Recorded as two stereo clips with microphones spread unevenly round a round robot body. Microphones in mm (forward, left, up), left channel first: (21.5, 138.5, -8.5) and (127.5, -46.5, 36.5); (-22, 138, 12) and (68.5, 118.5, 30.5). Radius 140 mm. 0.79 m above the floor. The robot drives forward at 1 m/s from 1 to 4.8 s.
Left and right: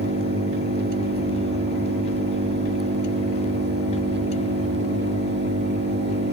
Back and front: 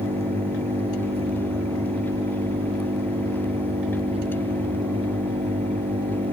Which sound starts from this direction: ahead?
An engine running, at 0.0 s.